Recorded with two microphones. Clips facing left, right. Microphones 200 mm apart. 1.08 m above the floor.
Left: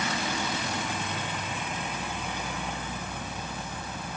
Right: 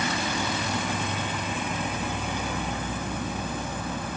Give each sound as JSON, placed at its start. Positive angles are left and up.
{"t": 0.0, "sound": "an insect", "side_deg": -80, "distance_m": 1.5}